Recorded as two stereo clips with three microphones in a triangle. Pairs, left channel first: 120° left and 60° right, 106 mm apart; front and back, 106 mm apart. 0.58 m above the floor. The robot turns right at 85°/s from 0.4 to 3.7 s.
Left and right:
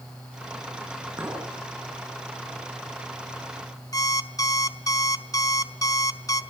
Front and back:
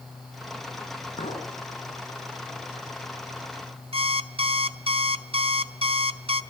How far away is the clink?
About 4.5 m.